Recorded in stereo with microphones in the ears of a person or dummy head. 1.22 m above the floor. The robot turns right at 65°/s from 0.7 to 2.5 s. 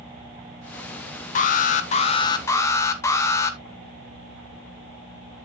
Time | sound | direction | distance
1.4 | an alarm | 85° left | 1.0 m